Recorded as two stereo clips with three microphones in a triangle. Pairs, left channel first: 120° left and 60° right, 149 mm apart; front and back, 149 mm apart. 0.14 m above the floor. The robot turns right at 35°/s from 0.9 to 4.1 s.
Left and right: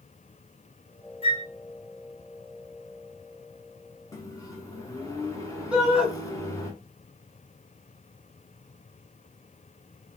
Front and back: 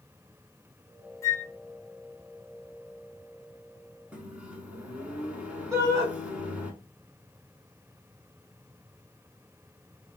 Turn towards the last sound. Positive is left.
turn(degrees=-135)